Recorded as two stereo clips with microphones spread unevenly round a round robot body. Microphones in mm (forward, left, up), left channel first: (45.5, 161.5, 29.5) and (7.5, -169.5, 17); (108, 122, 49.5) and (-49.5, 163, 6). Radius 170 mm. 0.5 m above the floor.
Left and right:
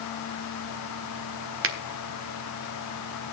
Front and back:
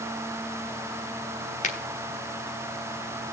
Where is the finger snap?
65° right, 1.3 m.